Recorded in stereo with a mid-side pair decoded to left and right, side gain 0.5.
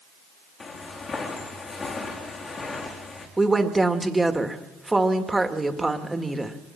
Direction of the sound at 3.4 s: 10° right.